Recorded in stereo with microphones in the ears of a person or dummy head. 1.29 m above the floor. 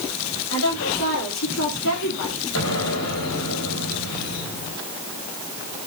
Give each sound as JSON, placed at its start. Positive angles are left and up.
{"t": 0.5, "sound": "a woman speaking", "side_deg": 70, "distance_m": 3.5}
{"t": 2.5, "sound": "an explosion", "side_deg": 75, "distance_m": 3.5}